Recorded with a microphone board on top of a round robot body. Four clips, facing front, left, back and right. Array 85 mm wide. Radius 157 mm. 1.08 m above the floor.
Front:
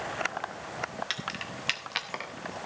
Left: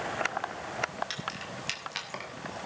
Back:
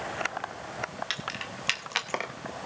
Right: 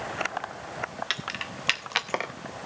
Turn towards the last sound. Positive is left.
turn(degrees=-125)